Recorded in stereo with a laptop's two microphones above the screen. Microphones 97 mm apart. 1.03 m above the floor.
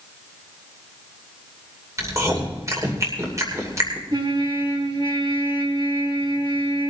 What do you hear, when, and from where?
2.0 s chewing: 30° right (ahead or behind), 2.5 m
4.1 s a trumpet: 50° right (ahead or behind), 2.5 m